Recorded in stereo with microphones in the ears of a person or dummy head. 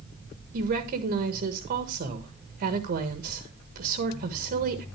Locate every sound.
0.5 s a woman speaking: 45° right (ahead or behind), 1.6 m